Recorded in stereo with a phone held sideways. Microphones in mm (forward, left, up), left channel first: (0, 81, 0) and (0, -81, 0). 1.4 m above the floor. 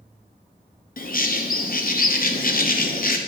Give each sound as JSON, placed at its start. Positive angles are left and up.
{"t": 1.0, "sound": "a bird", "side_deg": 60, "distance_m": 0.6}